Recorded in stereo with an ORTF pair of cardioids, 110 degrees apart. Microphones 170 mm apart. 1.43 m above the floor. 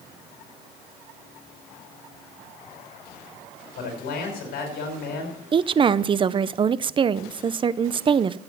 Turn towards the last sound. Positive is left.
turn(degrees=-30)